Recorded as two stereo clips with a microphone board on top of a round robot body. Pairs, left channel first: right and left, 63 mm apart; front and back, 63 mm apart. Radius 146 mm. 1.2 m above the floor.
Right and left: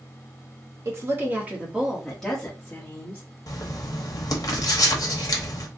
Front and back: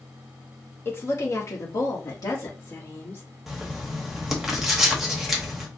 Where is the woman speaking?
50° left, 1.2 m; by 3.2 s 40° right, 1.4 m.